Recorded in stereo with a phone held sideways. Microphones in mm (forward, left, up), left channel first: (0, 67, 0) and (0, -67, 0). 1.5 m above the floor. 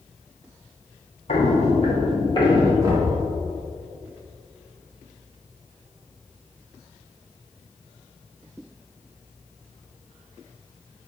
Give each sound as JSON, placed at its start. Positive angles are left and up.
{"t": 1.3, "sound": "footsteps", "side_deg": 60, "distance_m": 3.0}
{"t": 2.8, "sound": "knocking", "side_deg": -30, "distance_m": 3.5}